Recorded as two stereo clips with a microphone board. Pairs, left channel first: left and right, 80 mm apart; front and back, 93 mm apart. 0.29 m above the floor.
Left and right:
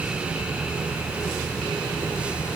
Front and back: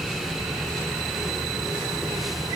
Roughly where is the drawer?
I don't hear a drawer.